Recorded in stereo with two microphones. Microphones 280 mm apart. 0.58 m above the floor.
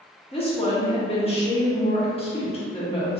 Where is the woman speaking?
20° left (ahead or behind), 0.8 m.